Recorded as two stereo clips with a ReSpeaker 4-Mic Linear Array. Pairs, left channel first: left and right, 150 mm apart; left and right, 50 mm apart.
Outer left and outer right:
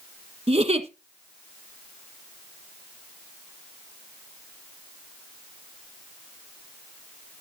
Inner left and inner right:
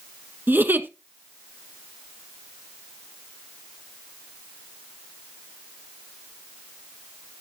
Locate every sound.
0.5 s a giggle: 45° right (ahead or behind), 1.1 m